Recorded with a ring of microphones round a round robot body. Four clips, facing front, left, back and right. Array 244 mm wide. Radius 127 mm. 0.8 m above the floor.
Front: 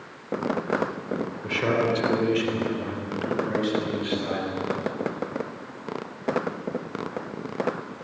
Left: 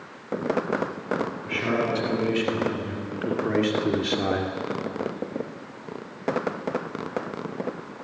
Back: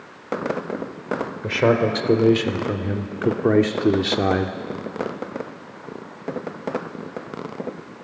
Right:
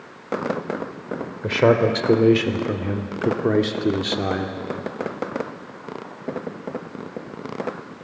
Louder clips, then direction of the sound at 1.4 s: Right 13 dB, back 6 dB; 115° right.